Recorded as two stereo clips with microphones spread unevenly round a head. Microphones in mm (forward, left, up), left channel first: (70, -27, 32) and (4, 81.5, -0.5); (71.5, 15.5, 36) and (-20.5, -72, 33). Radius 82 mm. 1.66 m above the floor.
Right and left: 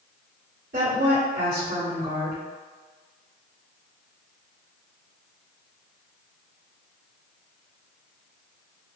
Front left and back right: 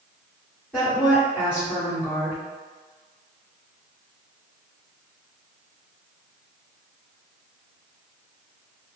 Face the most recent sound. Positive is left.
turn(degrees=130)